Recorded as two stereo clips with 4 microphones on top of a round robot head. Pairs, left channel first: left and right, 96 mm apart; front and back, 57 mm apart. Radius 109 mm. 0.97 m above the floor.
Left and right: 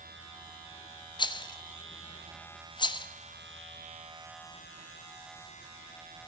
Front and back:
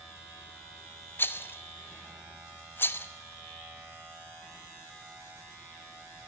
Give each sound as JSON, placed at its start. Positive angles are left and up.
{"t": 1.2, "sound": "a rattle", "azimuth_deg": 50, "distance_m": 1.2}